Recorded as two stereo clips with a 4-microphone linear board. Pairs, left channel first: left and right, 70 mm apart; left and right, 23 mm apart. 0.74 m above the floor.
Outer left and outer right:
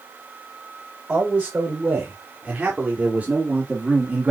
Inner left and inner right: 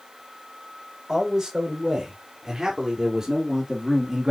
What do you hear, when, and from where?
1.1 s a man speaking: 20° right (ahead or behind), 3.5 m; by 4.3 s 25° right (ahead or behind), 1.3 m